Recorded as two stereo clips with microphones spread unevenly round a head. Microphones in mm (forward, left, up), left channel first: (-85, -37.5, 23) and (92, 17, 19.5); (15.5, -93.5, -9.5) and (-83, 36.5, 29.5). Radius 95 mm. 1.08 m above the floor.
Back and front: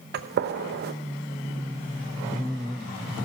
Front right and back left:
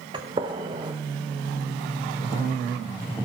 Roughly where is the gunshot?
Ahead left.